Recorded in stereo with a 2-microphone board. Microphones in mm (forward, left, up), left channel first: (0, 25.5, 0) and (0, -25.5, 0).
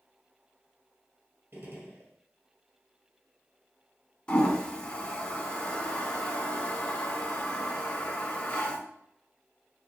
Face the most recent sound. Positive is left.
turn(degrees=20)  # may be behind; listen again after turning